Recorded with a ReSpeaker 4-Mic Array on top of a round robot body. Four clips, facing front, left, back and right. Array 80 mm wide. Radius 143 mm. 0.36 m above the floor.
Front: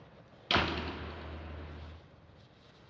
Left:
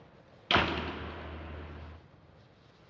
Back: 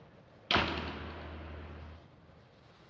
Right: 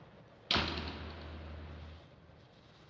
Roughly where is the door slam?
Left.